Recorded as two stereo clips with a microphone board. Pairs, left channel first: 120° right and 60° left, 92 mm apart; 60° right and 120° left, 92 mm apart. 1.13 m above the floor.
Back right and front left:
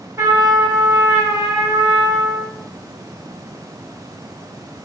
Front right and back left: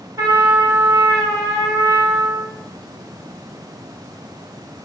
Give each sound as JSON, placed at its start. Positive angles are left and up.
{"t": 0.2, "sound": "a trumpet", "azimuth_deg": 95, "distance_m": 0.9}